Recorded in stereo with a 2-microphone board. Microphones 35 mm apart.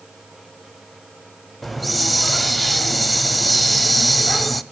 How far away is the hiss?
About 0.7 m.